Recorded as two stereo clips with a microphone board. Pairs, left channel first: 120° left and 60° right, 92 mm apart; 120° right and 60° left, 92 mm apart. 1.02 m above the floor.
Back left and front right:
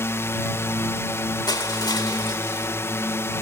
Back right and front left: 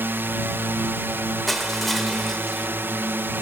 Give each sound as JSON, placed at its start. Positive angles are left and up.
{"t": 0.0, "sound": "a drone", "azimuth_deg": 100}
{"t": 1.5, "sound": "crushing", "azimuth_deg": 150}